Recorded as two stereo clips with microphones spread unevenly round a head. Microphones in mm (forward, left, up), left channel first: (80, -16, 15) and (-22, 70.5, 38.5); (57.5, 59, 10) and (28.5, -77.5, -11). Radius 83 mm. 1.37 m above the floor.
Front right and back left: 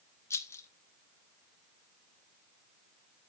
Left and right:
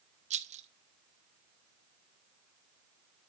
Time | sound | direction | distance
0.3 | a rattle | 100° right | 0.7 m